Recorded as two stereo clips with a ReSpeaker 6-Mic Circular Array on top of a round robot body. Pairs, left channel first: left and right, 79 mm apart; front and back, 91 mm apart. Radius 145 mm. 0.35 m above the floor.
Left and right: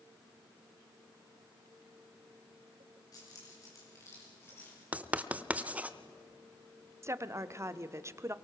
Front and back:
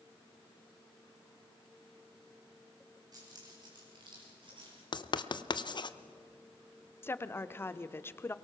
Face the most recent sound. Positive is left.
turn(degrees=-55)